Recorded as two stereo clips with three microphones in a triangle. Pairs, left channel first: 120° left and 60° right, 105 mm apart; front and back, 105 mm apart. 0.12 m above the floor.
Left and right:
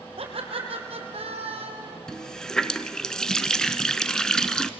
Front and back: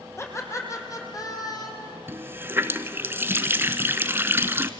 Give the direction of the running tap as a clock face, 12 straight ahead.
6 o'clock.